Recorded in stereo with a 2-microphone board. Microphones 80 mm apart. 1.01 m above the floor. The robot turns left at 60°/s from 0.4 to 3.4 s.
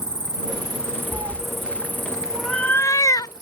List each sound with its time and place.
0.0 s an insect: 115° right; by 3.4 s 65° left
1.1 s a cat meowing: 60° right (ahead or behind); by 3.4 s 60° left (ahead or behind)